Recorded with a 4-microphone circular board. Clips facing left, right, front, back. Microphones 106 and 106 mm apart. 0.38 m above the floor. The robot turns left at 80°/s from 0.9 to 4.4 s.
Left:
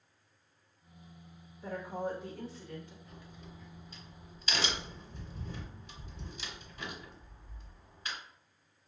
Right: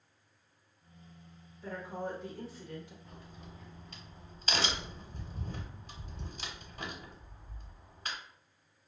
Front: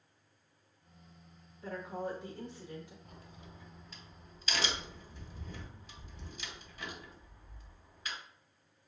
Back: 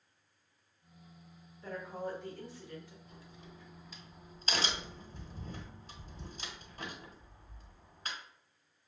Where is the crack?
25° right, 1.1 m; by 8.2 s 135° right, 1.1 m.